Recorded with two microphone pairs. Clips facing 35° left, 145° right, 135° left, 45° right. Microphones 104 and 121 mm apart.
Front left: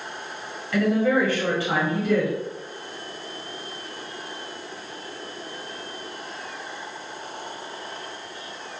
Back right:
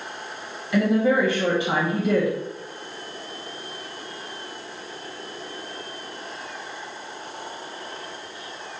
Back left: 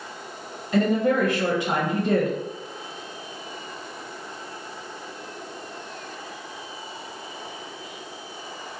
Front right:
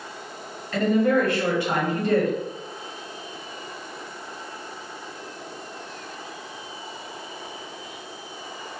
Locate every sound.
0.7 s a woman speaking: 175° left, 1.1 m